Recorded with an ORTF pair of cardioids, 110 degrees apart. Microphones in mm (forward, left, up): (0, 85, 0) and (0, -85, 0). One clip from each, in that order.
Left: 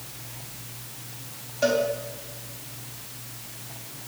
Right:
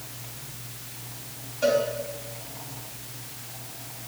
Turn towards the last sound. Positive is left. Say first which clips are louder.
# even
turn(degrees=25)